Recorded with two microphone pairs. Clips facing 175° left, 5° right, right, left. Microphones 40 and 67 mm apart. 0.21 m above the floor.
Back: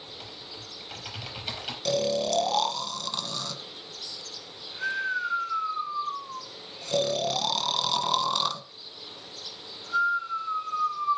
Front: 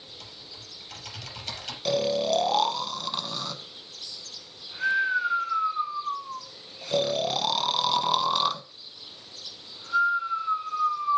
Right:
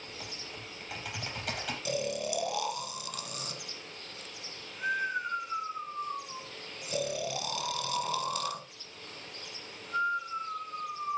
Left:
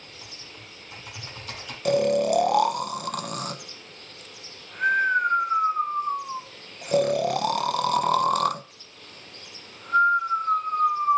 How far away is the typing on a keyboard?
About 5 m.